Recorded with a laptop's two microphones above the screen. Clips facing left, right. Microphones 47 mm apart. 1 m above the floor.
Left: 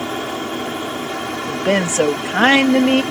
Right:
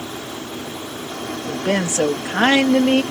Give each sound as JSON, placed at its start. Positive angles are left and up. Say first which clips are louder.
{"t": 0.0, "sound": "an aircraft", "louder": "left 7 dB", "side_deg": 60}
{"t": 1.5, "sound": "a woman speaking", "louder": "left 3 dB", "side_deg": 30}